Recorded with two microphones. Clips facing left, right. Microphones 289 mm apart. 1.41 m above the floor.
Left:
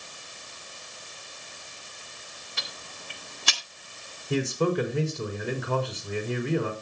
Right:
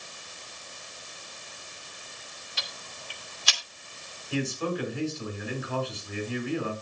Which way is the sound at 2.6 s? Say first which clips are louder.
Left 1 dB; 60° left (ahead or behind).